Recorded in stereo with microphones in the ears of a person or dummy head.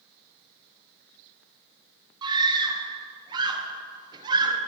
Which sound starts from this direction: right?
A scream, at 2.2 s.